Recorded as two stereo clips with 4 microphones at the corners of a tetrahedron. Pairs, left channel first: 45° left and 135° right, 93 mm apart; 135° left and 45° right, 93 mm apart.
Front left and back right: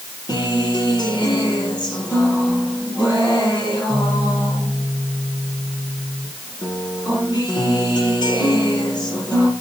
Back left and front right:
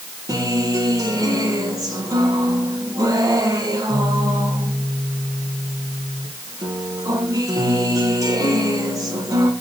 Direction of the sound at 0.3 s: 5° left.